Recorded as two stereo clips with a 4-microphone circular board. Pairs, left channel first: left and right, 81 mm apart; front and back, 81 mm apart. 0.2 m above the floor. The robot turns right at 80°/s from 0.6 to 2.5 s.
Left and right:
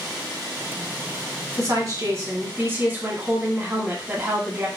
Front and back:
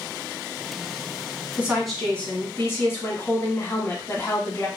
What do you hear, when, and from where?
1.6 s a woman speaking: 115° right, 1.5 m; by 4.7 s 40° right, 1.5 m